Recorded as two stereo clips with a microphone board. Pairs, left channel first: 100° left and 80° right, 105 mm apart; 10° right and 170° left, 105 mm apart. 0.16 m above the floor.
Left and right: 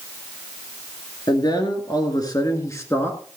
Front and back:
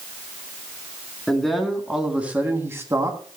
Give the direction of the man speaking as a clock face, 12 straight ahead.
10 o'clock.